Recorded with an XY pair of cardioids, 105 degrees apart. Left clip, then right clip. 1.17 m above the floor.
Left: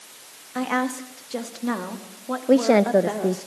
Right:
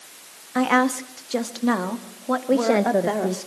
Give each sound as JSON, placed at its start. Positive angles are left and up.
{"t": 0.6, "sound": "a woman speaking", "azimuth_deg": -40, "distance_m": 2.0}
{"t": 2.5, "sound": "a woman speaking", "azimuth_deg": 25, "distance_m": 0.7}